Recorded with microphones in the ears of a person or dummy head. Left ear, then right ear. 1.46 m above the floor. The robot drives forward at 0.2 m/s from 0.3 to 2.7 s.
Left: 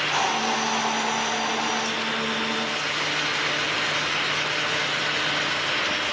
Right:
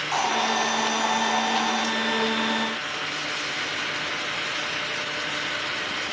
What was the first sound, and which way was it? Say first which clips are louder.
A hiss: even; 35° right (ahead or behind).